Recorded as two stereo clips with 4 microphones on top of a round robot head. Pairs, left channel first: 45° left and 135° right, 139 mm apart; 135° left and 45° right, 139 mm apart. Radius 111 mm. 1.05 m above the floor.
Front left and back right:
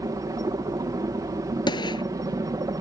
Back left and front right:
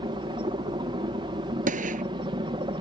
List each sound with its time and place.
0.0 s a helicopter: 80° right
1.7 s a gunshot: 15° right